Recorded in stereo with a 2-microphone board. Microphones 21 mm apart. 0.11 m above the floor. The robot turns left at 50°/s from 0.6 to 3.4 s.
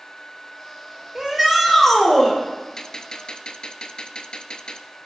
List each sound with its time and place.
1.1 s a shout: 155° right, 5.5 m; by 2.4 s 145° left, 5.5 m
2.8 s a gunshot: 145° left, 0.9 m; by 4.9 s 110° left, 0.9 m